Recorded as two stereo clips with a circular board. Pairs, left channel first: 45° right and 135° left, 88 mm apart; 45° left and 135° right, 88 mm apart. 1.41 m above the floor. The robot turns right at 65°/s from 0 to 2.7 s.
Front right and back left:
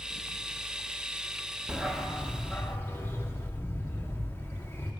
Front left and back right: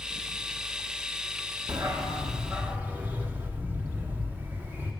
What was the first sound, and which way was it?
A dog barking, 150° right.